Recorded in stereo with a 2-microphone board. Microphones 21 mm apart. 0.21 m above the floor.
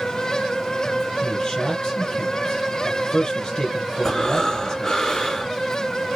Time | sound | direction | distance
1.2 | a man speaking | 30° left (ahead or behind) | 2.5 m
4.0 | breathing | 30° left (ahead or behind) | 3 m